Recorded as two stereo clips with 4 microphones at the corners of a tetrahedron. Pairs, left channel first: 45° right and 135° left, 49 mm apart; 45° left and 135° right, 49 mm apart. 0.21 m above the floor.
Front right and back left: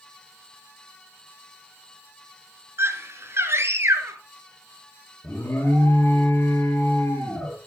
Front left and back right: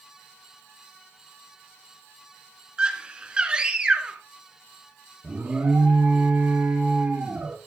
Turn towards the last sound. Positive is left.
turn(degrees=-80)